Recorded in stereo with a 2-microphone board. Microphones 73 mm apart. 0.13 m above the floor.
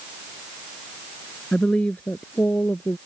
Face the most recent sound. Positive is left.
turn(degrees=25)  # may be behind; listen again after turning